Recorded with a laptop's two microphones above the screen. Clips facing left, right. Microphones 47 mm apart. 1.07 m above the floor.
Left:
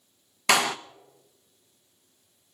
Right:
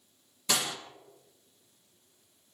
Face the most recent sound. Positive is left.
turn(degrees=75)  # may be behind; listen again after turning